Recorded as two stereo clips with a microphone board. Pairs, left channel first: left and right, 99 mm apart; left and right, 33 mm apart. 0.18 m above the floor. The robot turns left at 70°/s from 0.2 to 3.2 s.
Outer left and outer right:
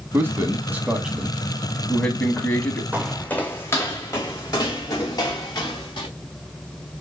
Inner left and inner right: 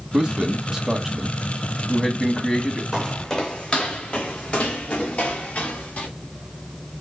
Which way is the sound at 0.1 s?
20° right (ahead or behind).